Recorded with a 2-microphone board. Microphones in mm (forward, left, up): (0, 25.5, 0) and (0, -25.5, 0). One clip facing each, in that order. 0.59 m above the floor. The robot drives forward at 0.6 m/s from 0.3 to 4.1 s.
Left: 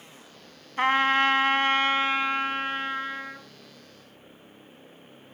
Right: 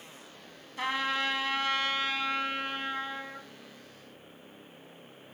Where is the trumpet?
50° left (ahead or behind), 0.7 m; by 3.5 s 20° left (ahead or behind), 1.5 m.